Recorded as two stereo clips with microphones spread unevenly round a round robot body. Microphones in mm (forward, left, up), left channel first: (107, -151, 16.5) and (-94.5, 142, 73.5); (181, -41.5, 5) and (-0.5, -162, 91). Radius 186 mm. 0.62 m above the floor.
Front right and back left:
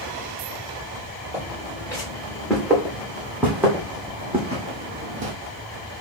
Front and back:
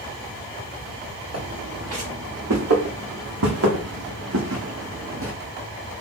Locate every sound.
1.3 s footsteps: 140° right, 3 m; by 5.3 s 175° left, 1.2 m